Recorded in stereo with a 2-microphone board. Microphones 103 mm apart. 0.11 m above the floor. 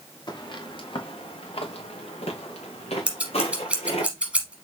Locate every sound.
0.3 s footsteps: 45° left (ahead or behind), 1.4 m; by 4.1 s 80° left, 2.5 m
3.1 s scissors: 10° right (ahead or behind), 2.0 m